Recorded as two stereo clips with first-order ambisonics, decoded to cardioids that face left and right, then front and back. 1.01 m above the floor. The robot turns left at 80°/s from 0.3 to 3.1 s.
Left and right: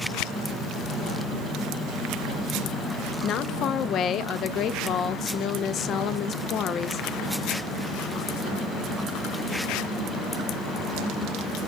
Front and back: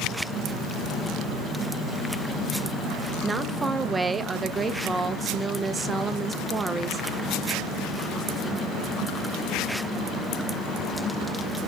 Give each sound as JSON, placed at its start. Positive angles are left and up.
{"t": 3.2, "sound": "a woman speaking", "azimuth_deg": 110, "distance_m": 0.7}